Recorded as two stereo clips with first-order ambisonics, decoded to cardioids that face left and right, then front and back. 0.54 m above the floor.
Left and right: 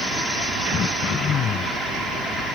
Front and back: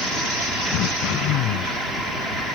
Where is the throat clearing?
30° left.